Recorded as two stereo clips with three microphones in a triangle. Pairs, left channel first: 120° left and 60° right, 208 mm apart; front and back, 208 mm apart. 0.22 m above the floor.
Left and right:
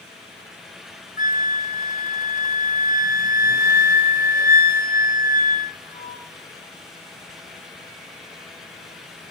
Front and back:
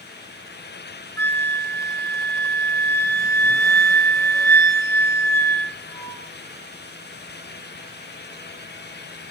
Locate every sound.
1.2 s a flute: 75° left, 1.8 m